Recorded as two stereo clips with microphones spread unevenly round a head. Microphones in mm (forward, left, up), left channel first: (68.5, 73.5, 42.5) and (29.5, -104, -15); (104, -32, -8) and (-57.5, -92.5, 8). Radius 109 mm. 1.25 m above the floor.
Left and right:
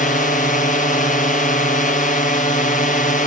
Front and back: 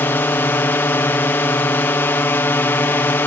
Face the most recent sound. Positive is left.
turn(degrees=75)